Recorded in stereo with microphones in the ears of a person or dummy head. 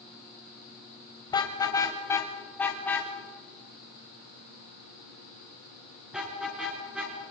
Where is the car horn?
25° left (ahead or behind), 2.5 m; by 7.1 s 5° right (ahead or behind), 7 m.